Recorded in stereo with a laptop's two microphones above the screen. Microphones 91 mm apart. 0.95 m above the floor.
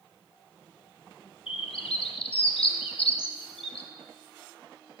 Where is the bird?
85° left, 1.1 m.